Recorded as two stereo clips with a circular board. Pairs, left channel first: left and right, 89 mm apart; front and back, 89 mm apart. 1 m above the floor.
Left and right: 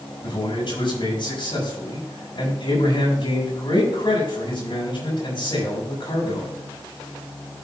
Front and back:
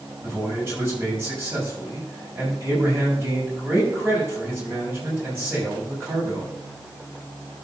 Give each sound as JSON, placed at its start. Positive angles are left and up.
{"t": 0.2, "sound": "a man speaking", "azimuth_deg": 115, "distance_m": 6.0}